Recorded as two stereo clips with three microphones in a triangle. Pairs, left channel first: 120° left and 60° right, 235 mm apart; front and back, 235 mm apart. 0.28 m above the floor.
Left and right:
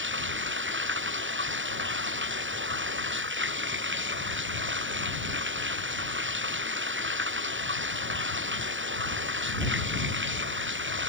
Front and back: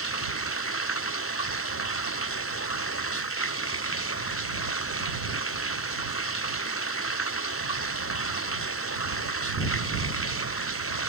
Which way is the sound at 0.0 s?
25° right.